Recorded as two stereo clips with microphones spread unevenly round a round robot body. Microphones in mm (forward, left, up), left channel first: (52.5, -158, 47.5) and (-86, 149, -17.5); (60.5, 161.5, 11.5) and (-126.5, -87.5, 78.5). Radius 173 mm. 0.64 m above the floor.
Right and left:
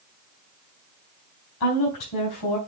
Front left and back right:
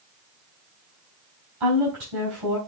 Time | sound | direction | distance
1.6 | a woman speaking | 100° right | 4 m